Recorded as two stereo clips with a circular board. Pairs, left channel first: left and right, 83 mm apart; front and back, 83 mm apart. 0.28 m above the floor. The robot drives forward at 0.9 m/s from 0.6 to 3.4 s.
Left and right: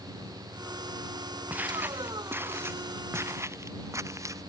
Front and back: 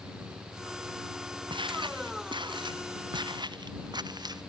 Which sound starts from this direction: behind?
Footsteps, at 1.5 s.